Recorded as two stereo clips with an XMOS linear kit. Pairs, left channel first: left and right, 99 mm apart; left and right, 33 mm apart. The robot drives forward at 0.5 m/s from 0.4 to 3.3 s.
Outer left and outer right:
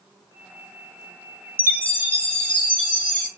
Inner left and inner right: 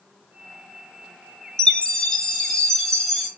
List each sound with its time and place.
1.6 s a chime: 20° left (ahead or behind), 0.8 m; by 3.3 s 10° left (ahead or behind), 1.6 m